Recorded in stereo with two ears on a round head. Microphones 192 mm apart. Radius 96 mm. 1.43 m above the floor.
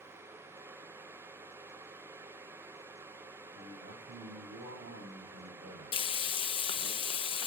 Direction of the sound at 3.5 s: 45° right (ahead or behind).